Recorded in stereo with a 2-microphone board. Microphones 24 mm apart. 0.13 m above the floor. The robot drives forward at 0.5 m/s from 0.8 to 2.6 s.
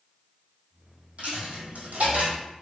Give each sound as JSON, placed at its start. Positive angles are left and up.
{"t": 1.2, "sound": "a dropped coin", "side_deg": -60, "distance_m": 1.5}